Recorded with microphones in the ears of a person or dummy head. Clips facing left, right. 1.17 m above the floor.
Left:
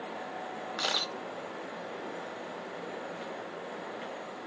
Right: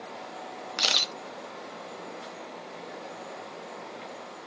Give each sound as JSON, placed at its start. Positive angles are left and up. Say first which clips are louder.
{"t": 0.8, "sound": "a camera shutter", "louder": "right 1 dB", "side_deg": -30, "distance_m": 0.8}